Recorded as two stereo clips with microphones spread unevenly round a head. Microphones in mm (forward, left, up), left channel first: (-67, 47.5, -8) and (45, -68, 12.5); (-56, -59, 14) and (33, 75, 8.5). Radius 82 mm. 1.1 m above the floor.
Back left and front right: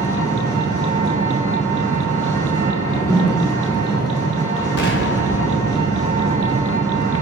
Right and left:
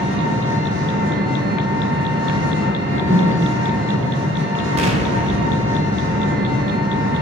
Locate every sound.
0.0 s an engine running: 60° left, 6 m
2.7 s a whoosh: 50° left, 5.5 m
4.8 s an explosion: 105° left, 2 m